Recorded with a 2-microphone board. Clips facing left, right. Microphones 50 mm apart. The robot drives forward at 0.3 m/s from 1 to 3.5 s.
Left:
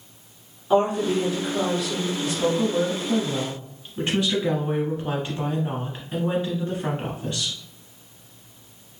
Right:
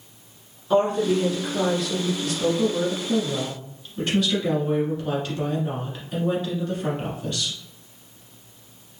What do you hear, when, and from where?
0.7 s a woman speaking: 10° left (ahead or behind), 1.4 m
2.2 s a woman speaking: 25° left (ahead or behind), 1.2 m